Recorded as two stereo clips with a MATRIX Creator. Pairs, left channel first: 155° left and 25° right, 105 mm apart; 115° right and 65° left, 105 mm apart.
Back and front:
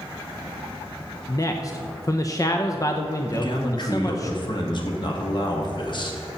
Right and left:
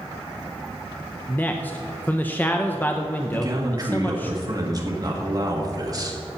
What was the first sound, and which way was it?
A man speaking, 175° right.